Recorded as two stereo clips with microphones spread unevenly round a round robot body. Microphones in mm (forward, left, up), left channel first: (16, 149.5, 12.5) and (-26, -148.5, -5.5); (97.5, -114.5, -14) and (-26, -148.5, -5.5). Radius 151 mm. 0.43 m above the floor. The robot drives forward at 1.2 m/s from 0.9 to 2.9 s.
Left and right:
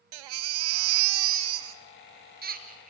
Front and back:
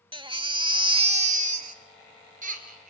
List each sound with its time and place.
0.1 s a baby crying: 110° right, 0.8 m; by 2.9 s 165° right, 3 m